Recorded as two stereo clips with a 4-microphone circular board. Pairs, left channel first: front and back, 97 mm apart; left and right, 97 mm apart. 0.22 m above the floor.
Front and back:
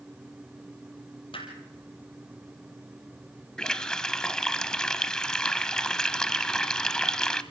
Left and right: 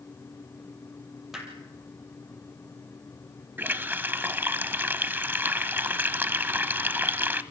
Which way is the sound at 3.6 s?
70° right.